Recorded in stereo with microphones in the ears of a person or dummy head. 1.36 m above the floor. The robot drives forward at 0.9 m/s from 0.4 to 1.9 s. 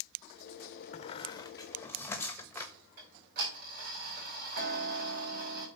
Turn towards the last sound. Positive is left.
turn(degrees=-50)  # may be behind; listen again after turning